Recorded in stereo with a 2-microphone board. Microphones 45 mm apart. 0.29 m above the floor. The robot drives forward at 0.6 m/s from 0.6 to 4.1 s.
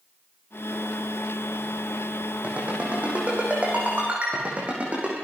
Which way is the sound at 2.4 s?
30° right (ahead or behind).